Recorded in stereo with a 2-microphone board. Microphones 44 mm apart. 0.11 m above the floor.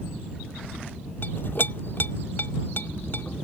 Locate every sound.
1.2 s a clink: 50° left (ahead or behind)